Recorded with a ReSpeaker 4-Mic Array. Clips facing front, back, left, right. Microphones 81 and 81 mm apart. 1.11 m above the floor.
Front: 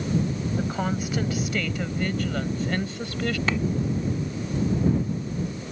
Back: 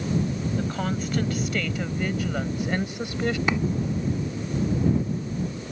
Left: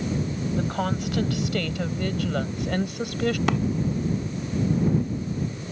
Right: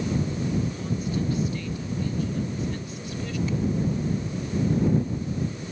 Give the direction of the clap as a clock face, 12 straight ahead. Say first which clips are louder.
Back 1 dB, left 6 dB; 8 o'clock.